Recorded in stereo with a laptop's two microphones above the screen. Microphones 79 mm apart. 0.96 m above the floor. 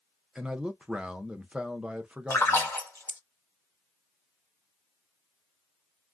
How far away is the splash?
About 0.9 m.